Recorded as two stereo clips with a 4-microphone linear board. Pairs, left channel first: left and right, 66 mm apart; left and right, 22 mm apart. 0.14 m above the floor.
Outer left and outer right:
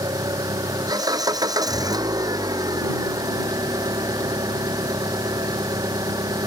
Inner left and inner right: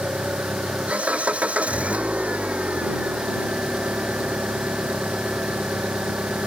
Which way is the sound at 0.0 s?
80° right.